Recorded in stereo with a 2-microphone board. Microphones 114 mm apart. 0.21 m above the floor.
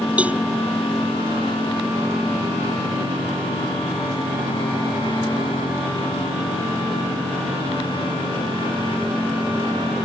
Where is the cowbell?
10° right (ahead or behind).